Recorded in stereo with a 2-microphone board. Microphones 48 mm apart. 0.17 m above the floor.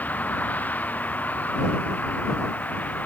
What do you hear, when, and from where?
0.0 s a vehicle: 35° left (ahead or behind)